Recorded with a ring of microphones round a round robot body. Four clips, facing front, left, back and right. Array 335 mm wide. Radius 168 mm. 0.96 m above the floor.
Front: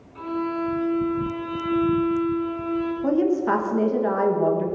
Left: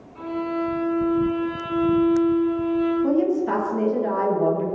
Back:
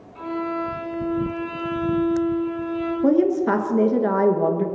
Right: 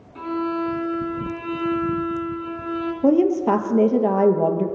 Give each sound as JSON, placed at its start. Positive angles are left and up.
{"t": 0.1, "sound": "a violin", "azimuth_deg": -90, "distance_m": 4.0}
{"t": 3.0, "sound": "a woman speaking", "azimuth_deg": -120, "distance_m": 1.2}